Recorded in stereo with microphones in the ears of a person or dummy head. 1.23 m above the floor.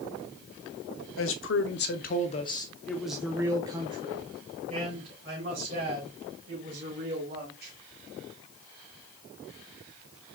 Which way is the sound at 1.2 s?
65° left (ahead or behind).